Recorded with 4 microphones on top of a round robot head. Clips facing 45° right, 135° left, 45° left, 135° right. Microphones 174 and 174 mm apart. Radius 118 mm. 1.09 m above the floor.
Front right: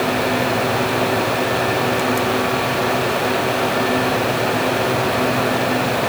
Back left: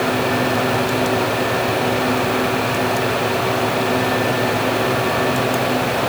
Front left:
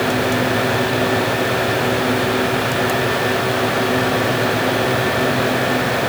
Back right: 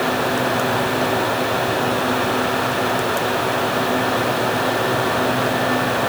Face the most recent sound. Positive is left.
No sound to turn to.